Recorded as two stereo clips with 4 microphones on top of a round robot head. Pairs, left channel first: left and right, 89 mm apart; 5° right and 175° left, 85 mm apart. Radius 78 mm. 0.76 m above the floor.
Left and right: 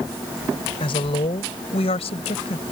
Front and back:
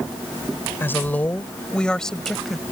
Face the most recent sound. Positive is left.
turn(degrees=85)